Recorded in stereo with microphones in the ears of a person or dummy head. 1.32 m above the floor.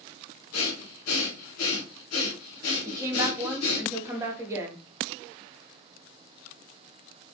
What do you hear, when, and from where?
0.5 s breathing: 85° left, 0.7 m
2.9 s a woman speaking: 15° right (ahead or behind), 0.7 m